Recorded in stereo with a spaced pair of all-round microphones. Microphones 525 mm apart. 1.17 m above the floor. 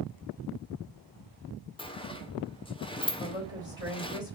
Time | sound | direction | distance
1.8 | a sliding door | 10° left (ahead or behind) | 0.7 m
3.2 | a woman speaking | 70° left (ahead or behind) | 2.5 m